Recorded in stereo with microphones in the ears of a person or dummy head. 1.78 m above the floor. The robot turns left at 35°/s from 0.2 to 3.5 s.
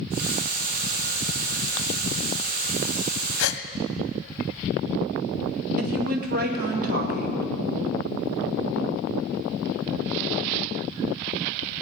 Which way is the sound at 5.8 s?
50° right (ahead or behind).